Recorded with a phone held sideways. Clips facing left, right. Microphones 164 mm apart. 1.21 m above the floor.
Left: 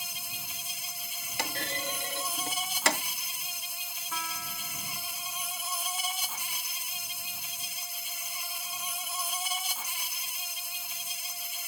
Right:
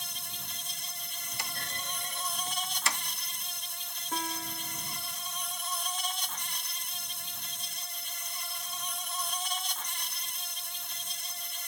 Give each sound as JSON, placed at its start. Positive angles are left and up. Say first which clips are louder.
{"t": 0.0, "sound": "an insect", "louder": "left 1 dB", "side_deg": 10}
{"t": 1.4, "sound": "a clunk", "louder": "left 8 dB", "side_deg": 80}
{"t": 4.1, "sound": "a piano", "louder": "right 5 dB", "side_deg": -45}